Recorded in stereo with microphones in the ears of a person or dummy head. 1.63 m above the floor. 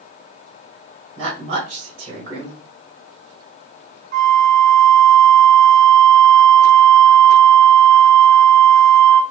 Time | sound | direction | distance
1.2 | a woman speaking | 35° right (ahead or behind) | 2 m
4.1 | a flute | 50° right (ahead or behind) | 0.6 m